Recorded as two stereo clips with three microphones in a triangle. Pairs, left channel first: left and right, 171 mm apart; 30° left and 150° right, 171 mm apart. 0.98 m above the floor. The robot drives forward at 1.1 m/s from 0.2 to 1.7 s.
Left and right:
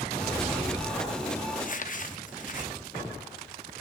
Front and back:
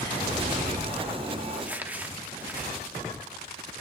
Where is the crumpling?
120° left, 0.8 m; by 2.7 s 130° left, 0.9 m.